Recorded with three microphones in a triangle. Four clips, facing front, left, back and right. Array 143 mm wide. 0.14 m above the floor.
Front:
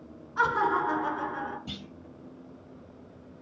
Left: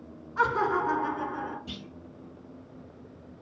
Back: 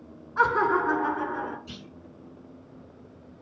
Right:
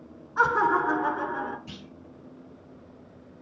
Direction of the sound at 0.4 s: 130° right.